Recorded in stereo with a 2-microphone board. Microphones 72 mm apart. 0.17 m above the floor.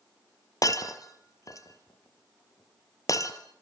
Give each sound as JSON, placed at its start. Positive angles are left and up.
{"t": 0.6, "sound": "breaking glass", "side_deg": 50, "distance_m": 1.7}